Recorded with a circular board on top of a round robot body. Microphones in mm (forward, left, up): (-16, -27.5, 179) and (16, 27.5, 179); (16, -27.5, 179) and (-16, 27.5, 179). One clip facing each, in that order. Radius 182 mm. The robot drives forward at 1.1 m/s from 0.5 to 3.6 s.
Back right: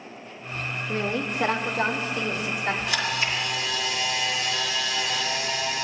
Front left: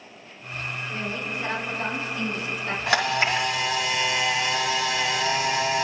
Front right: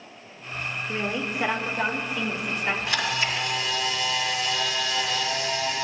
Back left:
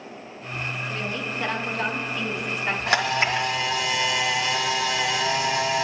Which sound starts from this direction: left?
A camera shutter, at 2.9 s.